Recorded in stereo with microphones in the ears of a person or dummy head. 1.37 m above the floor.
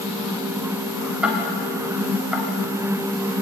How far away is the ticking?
About 4 m.